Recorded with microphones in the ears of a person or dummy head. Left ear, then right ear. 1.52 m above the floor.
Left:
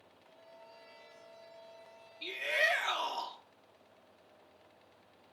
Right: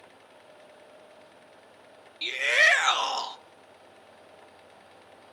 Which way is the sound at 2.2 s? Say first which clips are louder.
Right 10 dB; 55° right (ahead or behind).